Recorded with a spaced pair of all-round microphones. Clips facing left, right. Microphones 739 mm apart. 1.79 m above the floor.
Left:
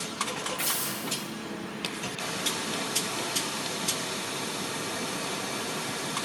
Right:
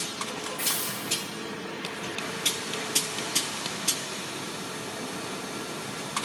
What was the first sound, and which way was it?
A hiss, 45° left (ahead or behind).